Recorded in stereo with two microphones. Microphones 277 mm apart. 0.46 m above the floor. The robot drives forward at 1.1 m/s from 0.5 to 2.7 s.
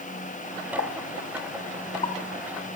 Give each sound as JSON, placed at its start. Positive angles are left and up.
{"t": 0.8, "sound": "a pop", "side_deg": 40, "distance_m": 1.3}